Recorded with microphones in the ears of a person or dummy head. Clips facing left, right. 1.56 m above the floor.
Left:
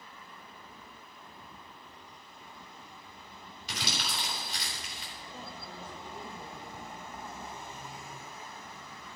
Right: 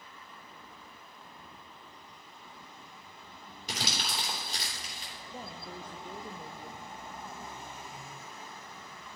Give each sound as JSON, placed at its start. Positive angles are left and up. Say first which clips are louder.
{"t": 3.7, "sound": "crumpling", "louder": "right 1 dB", "side_deg": -45, "distance_m": 3.0}
{"t": 5.3, "sound": "a woman speaking", "louder": "right 3 dB", "side_deg": -15, "distance_m": 0.5}